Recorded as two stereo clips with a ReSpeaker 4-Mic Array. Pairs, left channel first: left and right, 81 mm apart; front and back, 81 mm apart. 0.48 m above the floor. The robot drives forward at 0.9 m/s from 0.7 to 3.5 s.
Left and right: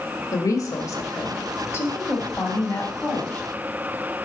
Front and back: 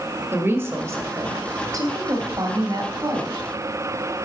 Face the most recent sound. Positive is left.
turn(degrees=160)